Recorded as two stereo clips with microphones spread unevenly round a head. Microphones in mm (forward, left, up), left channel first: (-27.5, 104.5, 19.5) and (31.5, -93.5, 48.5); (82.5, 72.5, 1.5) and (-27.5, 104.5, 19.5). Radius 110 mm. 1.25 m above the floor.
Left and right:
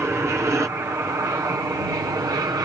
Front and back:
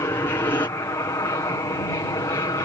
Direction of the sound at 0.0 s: 5° left.